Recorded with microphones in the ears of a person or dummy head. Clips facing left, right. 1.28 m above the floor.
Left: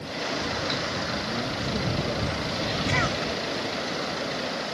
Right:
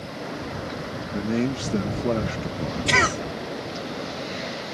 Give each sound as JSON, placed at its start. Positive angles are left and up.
{"t": 1.1, "sound": "a man speaking", "side_deg": -85}
{"t": 2.9, "sound": "a cough", "side_deg": -80}